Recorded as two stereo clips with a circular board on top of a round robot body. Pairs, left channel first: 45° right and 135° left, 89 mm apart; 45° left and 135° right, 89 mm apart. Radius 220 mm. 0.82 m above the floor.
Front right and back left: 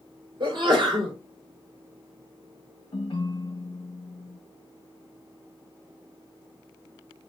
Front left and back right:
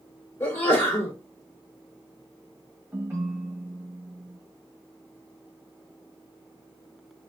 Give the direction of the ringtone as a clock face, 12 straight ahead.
2 o'clock.